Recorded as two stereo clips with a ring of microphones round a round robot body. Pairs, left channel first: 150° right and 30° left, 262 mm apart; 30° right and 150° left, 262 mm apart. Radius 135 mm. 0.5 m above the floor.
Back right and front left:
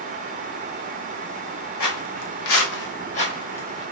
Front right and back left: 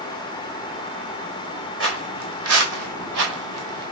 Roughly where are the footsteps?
Behind.